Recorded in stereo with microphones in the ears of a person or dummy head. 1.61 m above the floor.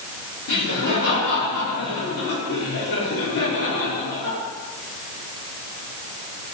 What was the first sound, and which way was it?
Laughter, 65° left (ahead or behind).